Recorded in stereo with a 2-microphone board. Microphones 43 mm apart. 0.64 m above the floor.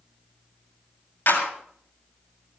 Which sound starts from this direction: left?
A clap, at 1.3 s.